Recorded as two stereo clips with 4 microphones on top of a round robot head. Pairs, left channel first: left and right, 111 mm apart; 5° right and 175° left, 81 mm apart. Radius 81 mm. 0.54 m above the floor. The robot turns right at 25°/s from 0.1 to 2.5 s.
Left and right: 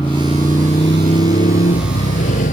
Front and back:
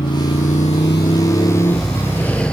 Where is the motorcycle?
15° left; by 2.5 s 75° left.